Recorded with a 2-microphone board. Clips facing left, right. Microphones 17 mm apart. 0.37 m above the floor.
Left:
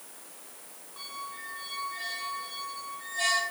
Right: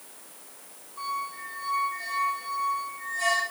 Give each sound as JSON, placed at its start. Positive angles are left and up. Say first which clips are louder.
{"t": 1.0, "sound": "a squeak", "louder": "right 7 dB", "side_deg": 35, "distance_m": 2.5}